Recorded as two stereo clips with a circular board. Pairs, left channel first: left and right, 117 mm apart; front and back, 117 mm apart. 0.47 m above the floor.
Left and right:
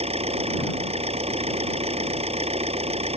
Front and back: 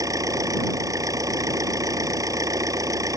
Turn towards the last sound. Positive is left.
turn(degrees=-120)